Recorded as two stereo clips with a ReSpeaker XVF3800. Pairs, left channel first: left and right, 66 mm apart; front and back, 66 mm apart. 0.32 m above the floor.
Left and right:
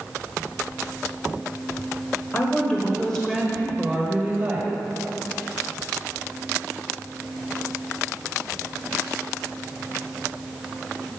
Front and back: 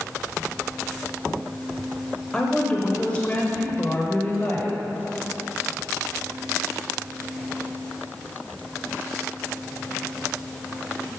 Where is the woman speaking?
70° left, 1.0 m; by 4.7 s 40° right, 1.3 m.